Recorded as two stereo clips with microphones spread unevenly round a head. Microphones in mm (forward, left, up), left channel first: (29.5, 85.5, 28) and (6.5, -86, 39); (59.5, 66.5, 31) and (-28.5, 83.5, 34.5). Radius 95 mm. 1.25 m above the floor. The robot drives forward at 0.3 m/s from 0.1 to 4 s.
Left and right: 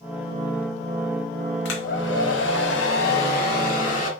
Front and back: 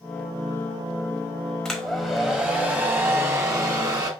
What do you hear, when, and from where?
1.6 s a hair dryer: 75° left, 0.8 m; by 4.1 s 130° left, 1.0 m